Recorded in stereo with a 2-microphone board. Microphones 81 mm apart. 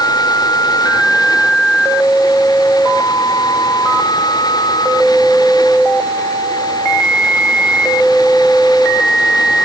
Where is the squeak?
I don't hear a squeak.